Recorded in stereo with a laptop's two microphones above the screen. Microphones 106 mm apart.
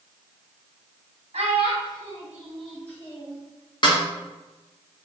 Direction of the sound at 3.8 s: 45° left (ahead or behind).